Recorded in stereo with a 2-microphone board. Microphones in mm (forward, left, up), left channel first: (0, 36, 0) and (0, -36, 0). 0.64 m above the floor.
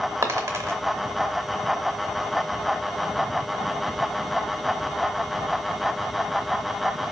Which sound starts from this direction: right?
A dropped coin, at 0.2 s.